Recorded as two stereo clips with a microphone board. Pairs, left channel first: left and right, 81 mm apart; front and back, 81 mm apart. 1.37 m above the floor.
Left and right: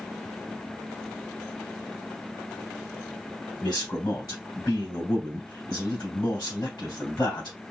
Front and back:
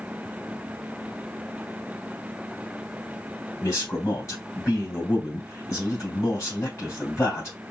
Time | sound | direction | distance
3.6 | a man speaking | 55° left | 3 m